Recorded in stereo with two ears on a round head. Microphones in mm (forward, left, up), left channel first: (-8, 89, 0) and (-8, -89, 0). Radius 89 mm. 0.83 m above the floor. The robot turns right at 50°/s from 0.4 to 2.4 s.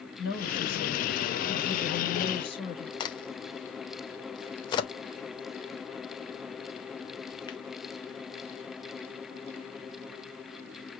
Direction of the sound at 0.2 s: 50° left.